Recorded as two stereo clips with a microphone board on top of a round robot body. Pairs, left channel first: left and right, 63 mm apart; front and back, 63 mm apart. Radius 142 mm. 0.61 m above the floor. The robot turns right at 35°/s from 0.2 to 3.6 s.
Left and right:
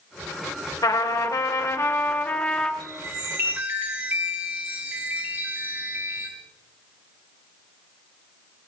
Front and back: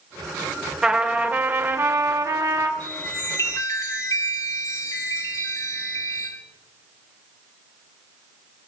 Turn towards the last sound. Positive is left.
turn(degrees=-30)